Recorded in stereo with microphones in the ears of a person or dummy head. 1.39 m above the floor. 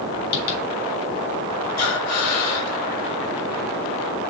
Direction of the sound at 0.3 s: 65° left (ahead or behind).